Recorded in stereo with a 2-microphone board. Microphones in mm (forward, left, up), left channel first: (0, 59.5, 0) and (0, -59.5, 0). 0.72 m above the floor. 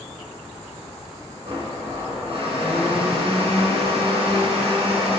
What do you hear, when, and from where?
1.4 s a blender: 45° right (ahead or behind), 1.6 m